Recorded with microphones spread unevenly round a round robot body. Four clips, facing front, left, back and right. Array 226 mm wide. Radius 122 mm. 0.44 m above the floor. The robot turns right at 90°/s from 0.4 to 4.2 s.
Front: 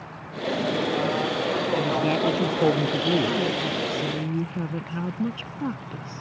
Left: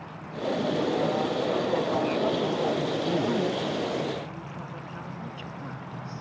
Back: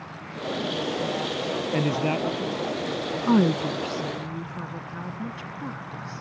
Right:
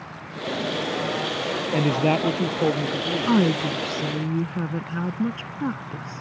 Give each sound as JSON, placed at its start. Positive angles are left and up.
{"t": 1.7, "sound": "a man speaking", "azimuth_deg": -120}
{"t": 3.3, "sound": "a woman speaking", "azimuth_deg": -145}